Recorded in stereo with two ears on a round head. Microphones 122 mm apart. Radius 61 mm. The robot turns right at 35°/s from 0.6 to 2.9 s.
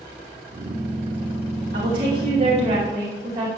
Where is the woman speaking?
75° right, 2.5 m; by 3.5 s 35° right, 2.5 m.